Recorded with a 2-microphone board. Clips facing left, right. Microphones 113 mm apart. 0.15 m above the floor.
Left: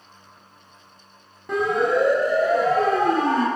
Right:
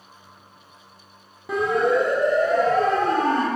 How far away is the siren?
About 6.5 m.